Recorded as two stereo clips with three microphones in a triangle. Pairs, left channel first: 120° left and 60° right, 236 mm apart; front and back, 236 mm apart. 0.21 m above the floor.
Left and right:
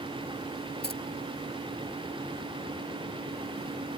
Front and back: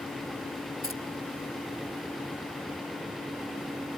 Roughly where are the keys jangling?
Behind.